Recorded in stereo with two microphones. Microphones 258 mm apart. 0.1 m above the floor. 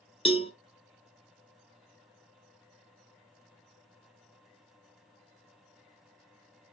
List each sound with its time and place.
0.2 s a cowbell: 20° left (ahead or behind), 0.6 m